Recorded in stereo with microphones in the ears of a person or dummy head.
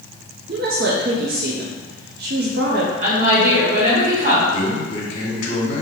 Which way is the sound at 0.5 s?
45° right (ahead or behind).